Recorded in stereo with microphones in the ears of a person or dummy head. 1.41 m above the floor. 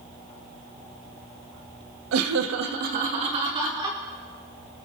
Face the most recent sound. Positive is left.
turn(degrees=-15)  # may be behind; listen again after turning